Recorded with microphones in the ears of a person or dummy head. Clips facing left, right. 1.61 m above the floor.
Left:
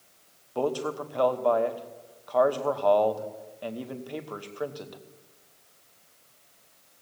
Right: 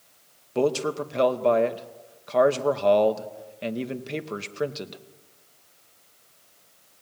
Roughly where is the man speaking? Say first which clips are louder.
Right 5 dB; right.